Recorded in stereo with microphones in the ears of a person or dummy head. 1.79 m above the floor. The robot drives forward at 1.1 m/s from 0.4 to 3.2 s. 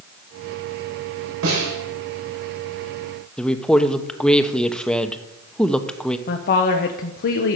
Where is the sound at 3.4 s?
Centre (ahead or behind), 1.0 m.